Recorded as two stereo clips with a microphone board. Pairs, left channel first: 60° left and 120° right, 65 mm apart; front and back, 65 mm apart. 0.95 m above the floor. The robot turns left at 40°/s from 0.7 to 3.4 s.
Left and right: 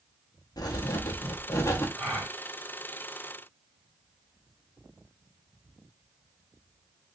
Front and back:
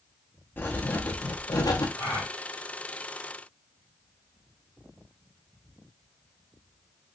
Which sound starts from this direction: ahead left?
Writing, at 0.6 s.